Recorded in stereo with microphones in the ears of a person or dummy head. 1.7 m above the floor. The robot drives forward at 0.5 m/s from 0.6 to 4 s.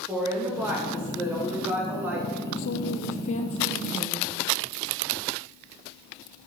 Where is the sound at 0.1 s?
10° right (ahead or behind), 3 m; by 2.4 s 5° right (ahead or behind), 4 m.